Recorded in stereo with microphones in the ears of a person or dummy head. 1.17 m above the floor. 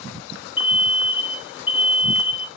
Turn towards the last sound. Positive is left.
turn(degrees=35)  # may be behind; listen again after turning